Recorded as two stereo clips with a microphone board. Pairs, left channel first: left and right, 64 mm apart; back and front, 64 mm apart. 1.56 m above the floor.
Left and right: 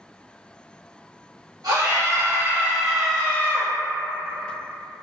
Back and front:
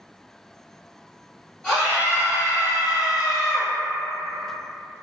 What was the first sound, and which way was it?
A scream, 105° right.